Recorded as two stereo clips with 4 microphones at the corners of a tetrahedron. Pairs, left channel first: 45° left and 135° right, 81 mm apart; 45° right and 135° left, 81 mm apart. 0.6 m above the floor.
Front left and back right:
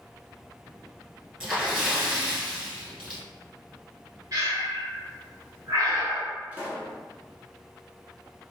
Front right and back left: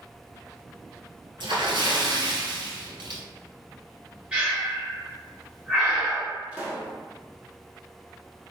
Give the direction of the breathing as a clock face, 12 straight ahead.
5 o'clock.